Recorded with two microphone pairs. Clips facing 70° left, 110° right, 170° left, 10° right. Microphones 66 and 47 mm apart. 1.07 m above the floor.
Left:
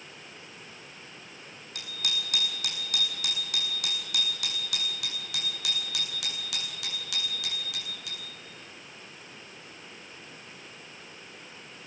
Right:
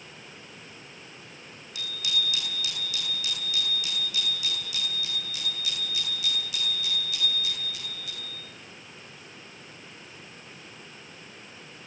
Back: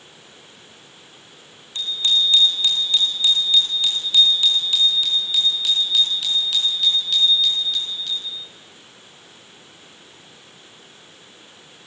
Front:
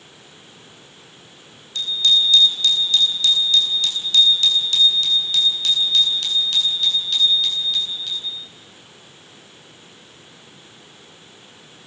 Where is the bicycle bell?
105° left, 8.5 m; by 8.3 s 75° left, 10.5 m.